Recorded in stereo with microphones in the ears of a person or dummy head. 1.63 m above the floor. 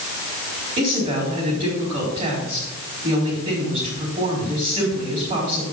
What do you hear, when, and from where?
0.8 s a woman speaking: 35° right (ahead or behind), 4.5 m